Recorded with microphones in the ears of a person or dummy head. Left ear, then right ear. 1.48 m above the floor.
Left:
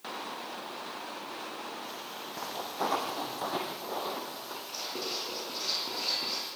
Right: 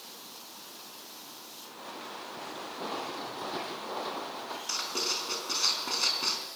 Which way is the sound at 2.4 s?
40° left (ahead or behind).